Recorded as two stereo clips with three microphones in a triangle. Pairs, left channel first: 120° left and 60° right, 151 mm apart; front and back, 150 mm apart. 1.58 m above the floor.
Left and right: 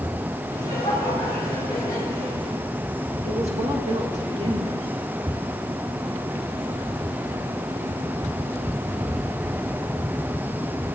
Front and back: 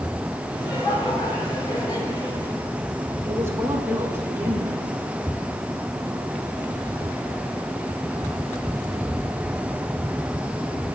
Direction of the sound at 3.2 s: 105° right.